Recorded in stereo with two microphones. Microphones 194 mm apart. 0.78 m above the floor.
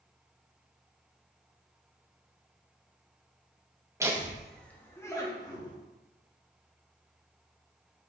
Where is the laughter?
15° right (ahead or behind), 0.6 m; by 5.8 s 20° left (ahead or behind), 1.2 m.